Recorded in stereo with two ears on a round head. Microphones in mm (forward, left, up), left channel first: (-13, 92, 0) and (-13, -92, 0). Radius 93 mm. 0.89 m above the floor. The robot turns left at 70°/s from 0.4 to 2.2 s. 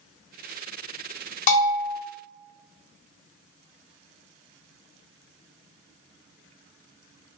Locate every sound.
1.5 s a bell: 40° left, 1.7 m; by 2.0 s 5° left, 1.7 m